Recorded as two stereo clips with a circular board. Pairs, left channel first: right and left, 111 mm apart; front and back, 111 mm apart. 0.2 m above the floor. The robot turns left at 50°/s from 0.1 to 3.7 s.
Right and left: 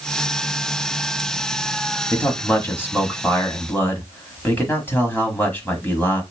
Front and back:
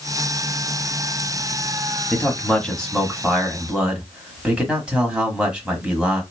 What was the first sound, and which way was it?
A man speaking, 40° right.